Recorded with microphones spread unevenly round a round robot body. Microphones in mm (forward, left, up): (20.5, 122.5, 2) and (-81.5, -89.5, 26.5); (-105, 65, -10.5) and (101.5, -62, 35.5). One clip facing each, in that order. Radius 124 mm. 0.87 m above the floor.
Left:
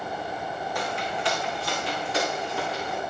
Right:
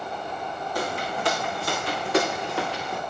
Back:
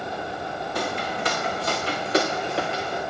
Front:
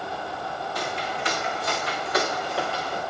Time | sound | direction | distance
0.8 | footsteps | 165° right | 3 m